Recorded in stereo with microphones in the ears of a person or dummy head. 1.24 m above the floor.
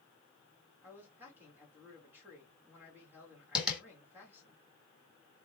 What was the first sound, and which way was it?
A man speaking, 10° right (ahead or behind).